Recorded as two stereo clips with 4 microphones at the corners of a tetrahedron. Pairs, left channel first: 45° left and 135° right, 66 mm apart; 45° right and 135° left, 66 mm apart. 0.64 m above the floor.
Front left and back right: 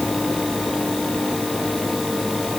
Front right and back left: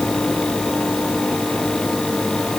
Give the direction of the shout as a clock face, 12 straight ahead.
I don't hear a shout.